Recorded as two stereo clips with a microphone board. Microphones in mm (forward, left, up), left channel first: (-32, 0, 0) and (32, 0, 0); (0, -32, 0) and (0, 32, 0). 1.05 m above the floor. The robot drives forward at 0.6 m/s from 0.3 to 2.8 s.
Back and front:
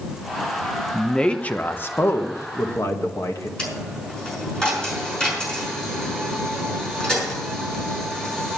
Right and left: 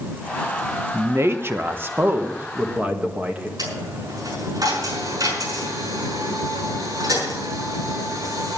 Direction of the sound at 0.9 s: 95° left.